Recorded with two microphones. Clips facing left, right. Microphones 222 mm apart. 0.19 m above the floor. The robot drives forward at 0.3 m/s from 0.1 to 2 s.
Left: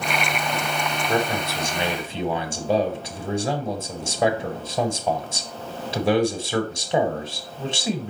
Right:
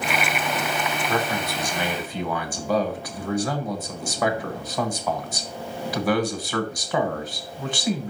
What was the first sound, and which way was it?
A man speaking, 25° left (ahead or behind).